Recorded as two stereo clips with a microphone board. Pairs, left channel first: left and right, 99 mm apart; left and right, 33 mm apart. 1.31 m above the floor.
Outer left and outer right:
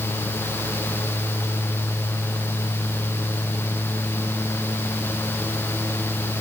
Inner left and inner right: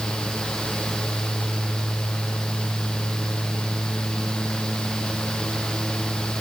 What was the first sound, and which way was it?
Only background noise.